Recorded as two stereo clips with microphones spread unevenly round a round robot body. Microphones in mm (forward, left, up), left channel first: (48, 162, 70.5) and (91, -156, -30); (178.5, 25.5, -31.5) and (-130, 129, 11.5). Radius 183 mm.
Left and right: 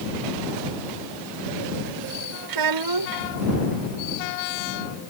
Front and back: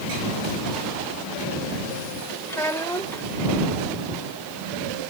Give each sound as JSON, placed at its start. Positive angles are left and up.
{"t": 2.5, "sound": "a child speaking", "azimuth_deg": -105}